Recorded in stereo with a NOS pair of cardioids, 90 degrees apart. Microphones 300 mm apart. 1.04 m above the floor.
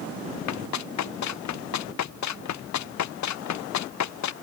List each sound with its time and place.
0.5 s running footsteps: 65° left; by 4.3 s 70° left